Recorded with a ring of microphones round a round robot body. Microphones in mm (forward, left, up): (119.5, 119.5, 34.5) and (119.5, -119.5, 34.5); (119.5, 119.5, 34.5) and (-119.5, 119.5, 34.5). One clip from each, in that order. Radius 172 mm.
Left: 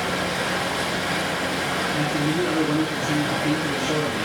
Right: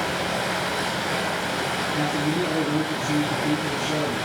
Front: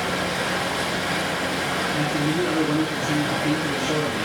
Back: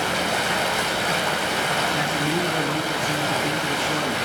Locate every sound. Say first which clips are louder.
0.0 s running water: left 1 dB, back 2 dB; 165° right, 4 m
1.9 s a man speaking: left 1 dB, back 1 dB; 175° right, 8 m